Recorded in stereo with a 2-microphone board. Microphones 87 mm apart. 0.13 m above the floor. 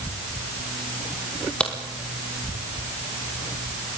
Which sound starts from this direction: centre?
A crack, at 1.6 s.